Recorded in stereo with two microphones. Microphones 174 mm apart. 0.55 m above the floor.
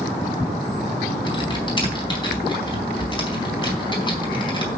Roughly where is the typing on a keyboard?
Left.